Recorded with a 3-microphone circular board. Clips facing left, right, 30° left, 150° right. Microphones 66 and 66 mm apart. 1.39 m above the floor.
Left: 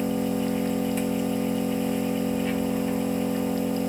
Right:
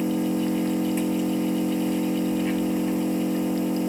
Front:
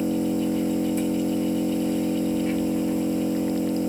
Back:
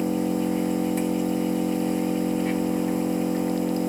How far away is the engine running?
About 2.5 m.